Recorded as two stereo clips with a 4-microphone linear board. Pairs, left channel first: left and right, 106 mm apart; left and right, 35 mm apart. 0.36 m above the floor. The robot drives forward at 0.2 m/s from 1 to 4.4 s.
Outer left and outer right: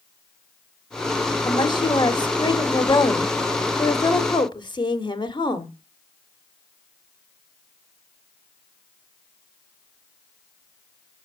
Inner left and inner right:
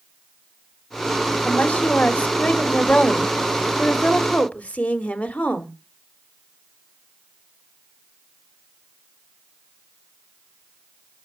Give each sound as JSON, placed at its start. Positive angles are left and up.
{"t": 1.4, "sound": "a woman speaking", "side_deg": 45, "distance_m": 1.2}